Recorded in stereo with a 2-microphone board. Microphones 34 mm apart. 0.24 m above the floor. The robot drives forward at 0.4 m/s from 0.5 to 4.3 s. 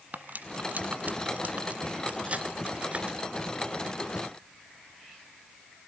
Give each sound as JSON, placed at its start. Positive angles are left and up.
{"t": 0.1, "sound": "cutlery clinking", "side_deg": -50, "distance_m": 1.4}